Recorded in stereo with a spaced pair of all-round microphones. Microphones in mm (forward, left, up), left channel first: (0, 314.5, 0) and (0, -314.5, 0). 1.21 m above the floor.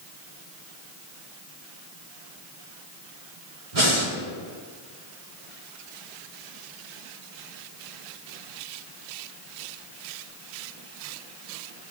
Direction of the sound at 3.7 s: 50° right (ahead or behind).